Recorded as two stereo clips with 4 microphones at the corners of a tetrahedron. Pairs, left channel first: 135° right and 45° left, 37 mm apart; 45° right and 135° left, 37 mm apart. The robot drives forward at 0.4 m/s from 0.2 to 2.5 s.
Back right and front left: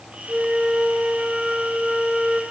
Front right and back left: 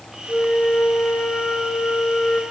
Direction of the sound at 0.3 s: 30° right.